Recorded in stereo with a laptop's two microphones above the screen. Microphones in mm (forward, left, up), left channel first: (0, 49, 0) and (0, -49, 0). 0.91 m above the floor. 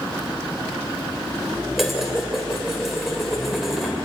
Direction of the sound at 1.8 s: Centre (ahead or behind).